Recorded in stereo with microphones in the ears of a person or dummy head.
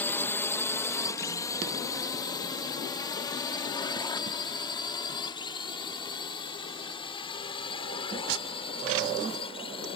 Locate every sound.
0.0 s a drone: 10° left (ahead or behind); by 10.0 s 30° left (ahead or behind)